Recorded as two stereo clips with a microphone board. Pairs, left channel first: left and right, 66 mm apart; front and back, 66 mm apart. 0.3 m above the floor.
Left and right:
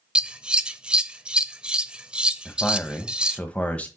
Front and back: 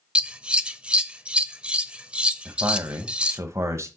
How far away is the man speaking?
About 1.4 m.